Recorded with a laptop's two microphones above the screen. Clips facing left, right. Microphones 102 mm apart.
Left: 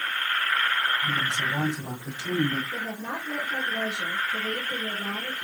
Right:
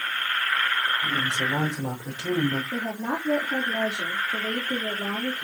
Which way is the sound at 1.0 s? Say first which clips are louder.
Right 1 dB; 70° right (ahead or behind).